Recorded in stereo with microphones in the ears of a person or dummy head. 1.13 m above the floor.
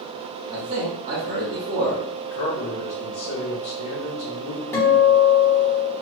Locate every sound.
0.5 s a man speaking: 45° right (ahead or behind), 1.2 m
2.3 s a man speaking: 85° left, 0.9 m
4.7 s a guitar: 15° left (ahead or behind), 1.2 m